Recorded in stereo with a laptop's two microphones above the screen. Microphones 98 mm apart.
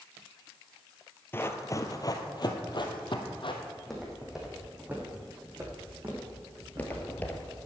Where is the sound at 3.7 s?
5° left (ahead or behind), 2.5 m; by 7.6 s 50° right (ahead or behind), 3.5 m.